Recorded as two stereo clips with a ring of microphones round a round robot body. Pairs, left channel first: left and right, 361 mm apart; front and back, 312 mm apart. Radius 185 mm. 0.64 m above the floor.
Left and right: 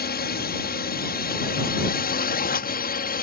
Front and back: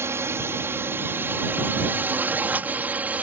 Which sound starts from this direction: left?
A drone, at 0.0 s.